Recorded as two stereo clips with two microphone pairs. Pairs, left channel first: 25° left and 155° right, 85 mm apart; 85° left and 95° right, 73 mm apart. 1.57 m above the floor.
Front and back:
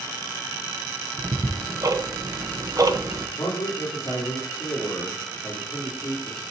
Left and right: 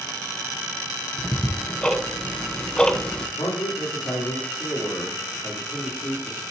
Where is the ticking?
165° left, 0.9 m.